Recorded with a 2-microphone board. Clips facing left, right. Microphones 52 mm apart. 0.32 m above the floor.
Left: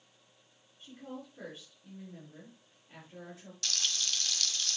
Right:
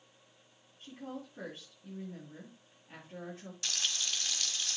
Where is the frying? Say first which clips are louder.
Left 1 dB; 20° right (ahead or behind), 1.4 m.